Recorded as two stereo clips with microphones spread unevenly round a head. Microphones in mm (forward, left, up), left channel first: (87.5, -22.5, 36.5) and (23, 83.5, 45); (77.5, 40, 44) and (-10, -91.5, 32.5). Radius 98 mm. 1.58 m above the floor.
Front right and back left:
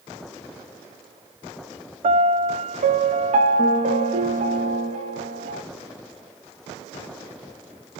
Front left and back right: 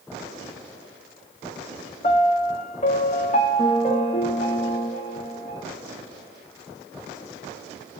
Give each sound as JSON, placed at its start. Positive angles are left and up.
{"t": 2.0, "sound": "a piano", "azimuth_deg": 110, "distance_m": 0.6}